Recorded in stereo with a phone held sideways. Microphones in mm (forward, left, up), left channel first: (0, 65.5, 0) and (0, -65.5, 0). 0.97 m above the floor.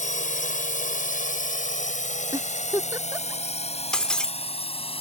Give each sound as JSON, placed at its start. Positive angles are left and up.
{"t": 0.0, "sound": "a drone", "side_deg": 70}
{"t": 2.3, "sound": "a giggle", "side_deg": -25}
{"t": 3.9, "sound": "breaking glass", "side_deg": 5}